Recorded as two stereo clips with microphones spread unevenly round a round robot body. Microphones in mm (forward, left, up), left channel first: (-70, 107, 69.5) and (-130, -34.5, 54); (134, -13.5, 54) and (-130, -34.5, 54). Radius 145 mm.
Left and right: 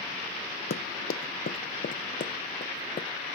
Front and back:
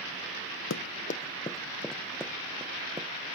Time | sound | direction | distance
0.7 | running footsteps | 50° left | ?